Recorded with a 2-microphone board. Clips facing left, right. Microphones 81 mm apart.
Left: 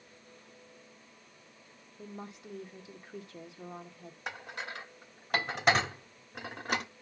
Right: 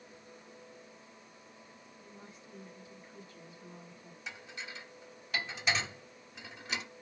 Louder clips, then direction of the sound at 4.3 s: Left 6 dB; 55° left (ahead or behind).